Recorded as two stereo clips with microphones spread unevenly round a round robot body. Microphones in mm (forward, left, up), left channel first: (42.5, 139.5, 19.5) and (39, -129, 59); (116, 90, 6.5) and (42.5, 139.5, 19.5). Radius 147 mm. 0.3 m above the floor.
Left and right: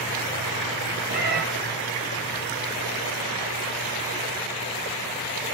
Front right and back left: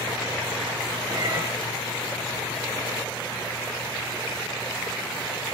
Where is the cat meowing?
150° right, 1.3 m.